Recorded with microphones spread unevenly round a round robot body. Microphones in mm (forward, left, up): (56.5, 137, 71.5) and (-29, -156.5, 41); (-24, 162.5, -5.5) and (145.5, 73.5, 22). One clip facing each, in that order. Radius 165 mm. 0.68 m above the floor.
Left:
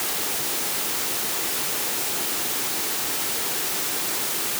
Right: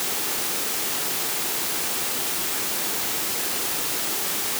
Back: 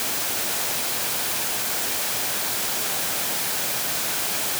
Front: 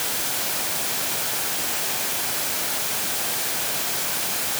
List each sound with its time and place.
Only background noise.